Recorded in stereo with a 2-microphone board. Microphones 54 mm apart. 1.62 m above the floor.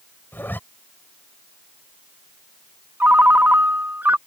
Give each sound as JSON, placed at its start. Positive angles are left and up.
{"t": 0.3, "sound": "a zipper", "side_deg": 35}
{"t": 3.0, "sound": "a ringtone", "side_deg": -35}